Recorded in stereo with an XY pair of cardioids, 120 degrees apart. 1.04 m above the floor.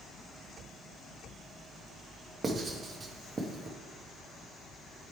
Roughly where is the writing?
Ahead right.